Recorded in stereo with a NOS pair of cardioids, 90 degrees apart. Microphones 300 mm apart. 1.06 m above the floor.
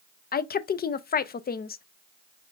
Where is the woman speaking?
30° left, 0.5 m.